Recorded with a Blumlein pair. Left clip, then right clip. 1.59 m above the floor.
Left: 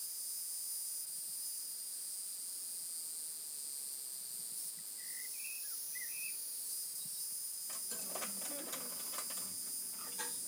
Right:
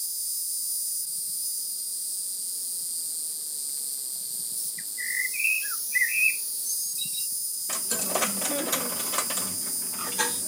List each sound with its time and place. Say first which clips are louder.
0.0 s an insect: right 13 dB; 55° right
4.8 s a bird: right 21 dB; 45° right
7.7 s a dropped coin: right 18 dB; 50° right